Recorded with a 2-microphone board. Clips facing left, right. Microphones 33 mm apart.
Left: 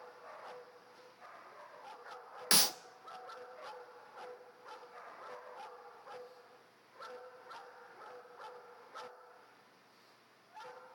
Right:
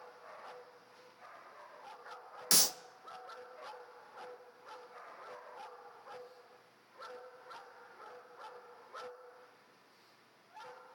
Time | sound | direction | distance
2.5 | a clap | 30° left (ahead or behind) | 0.5 m